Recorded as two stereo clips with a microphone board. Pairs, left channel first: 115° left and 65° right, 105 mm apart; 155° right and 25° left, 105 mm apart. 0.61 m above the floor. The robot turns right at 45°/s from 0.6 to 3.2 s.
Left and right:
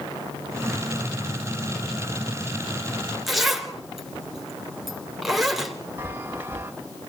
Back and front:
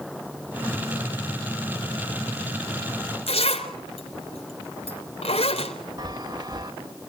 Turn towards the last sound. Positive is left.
turn(degrees=-5)